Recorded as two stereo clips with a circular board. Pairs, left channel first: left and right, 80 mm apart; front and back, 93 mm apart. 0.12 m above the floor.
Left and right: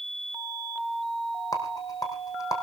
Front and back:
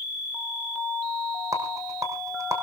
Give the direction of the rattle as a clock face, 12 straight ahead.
8 o'clock.